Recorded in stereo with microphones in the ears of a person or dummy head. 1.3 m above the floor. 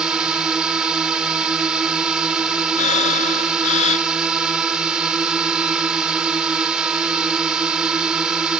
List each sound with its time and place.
0.0 s a drone: 5° right (ahead or behind)
2.8 s breathing: 40° left (ahead or behind)